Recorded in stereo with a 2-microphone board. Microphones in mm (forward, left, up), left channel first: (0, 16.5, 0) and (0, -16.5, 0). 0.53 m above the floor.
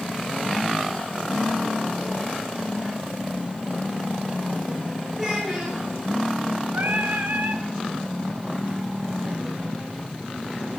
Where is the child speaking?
10° right (ahead or behind), 5 m.